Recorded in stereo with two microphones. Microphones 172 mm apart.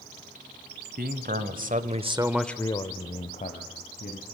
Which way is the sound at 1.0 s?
65° right (ahead or behind).